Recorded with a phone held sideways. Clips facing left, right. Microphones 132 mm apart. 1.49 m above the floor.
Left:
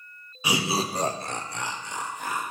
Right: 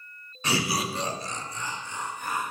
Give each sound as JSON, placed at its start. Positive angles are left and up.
{"t": 0.4, "sound": "laughter", "side_deg": 10, "distance_m": 0.5}